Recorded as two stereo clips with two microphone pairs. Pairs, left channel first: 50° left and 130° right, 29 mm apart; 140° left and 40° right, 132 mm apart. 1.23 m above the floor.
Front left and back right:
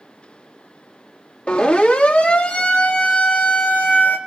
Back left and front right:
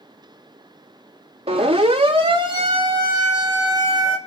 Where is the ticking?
I don't hear ticking.